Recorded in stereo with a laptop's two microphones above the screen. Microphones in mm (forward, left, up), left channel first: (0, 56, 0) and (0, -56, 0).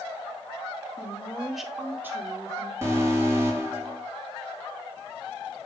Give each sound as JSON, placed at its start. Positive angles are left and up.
{"t": 1.0, "sound": "a woman speaking", "side_deg": 25, "distance_m": 1.6}
{"t": 2.8, "sound": "an alarm", "side_deg": -25, "distance_m": 3.0}